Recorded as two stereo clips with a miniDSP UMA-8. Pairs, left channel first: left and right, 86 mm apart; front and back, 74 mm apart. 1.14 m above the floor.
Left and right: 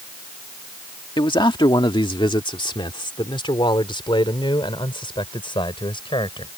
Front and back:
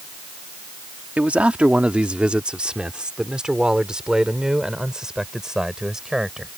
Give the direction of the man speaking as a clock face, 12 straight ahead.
8 o'clock.